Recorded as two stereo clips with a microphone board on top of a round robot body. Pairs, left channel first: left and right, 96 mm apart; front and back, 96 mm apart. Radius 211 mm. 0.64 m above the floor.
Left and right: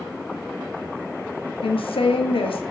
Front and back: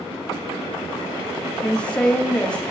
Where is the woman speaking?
80° left, 1.0 m.